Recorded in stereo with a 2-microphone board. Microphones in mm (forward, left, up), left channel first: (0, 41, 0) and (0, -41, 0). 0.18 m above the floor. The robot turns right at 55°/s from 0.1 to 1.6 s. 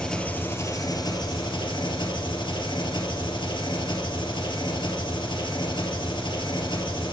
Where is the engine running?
10° left, 2 m; by 7.1 s 90° left, 2 m.